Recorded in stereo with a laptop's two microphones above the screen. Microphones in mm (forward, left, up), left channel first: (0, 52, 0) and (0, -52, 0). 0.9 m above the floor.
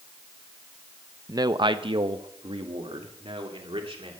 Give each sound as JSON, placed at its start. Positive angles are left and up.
{"t": 1.3, "sound": "a man speaking", "side_deg": -35, "distance_m": 0.6}